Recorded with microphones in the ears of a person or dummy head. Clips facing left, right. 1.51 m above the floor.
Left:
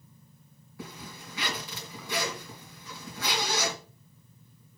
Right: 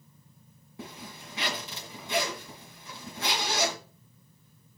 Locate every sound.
0.8 s a zipper: 25° right (ahead or behind), 2.5 m